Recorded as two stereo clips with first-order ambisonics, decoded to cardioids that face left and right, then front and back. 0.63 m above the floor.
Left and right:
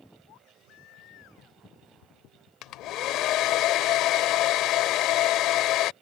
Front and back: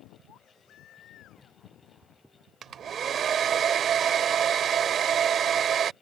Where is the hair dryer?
125° left.